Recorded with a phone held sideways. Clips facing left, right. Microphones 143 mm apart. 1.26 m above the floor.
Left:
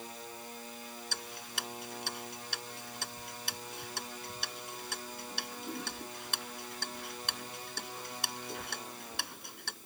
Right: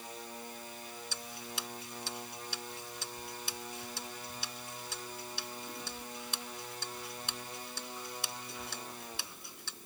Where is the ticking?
65° left (ahead or behind).